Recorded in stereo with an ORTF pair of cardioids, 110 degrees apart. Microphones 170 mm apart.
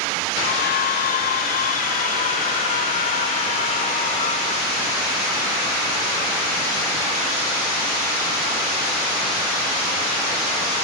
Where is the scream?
65° left; by 4.8 s 35° left.